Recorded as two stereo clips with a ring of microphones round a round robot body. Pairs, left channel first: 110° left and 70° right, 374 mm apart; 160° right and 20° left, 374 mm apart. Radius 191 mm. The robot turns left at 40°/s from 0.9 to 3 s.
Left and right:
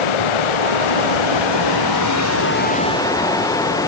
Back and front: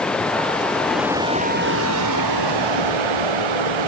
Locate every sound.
0.0 s running water: 115° left; by 3.9 s 30° left